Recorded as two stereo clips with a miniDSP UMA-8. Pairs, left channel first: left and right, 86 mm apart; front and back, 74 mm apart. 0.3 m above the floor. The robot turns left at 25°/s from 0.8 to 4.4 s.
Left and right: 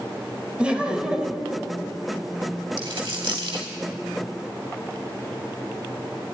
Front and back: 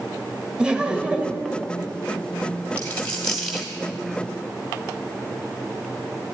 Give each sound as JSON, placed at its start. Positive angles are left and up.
{"t": 0.6, "sound": "laughter", "azimuth_deg": -135, "distance_m": 0.9}
{"t": 2.8, "sound": "a dropped coin", "azimuth_deg": -65, "distance_m": 2.5}